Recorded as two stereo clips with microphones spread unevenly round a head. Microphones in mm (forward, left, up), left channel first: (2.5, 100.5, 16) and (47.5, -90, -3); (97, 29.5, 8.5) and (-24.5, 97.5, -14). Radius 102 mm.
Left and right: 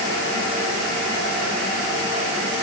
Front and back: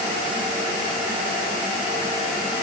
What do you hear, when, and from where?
Only background noise.